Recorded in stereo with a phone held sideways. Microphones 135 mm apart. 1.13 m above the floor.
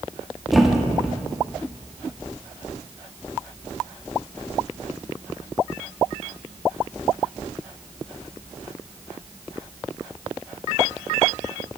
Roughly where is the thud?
Centre.